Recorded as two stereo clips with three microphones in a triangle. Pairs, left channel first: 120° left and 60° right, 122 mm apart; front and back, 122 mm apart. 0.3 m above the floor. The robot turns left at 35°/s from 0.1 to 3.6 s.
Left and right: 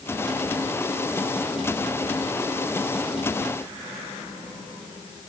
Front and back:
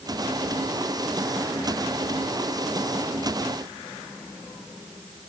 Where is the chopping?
I don't hear chopping.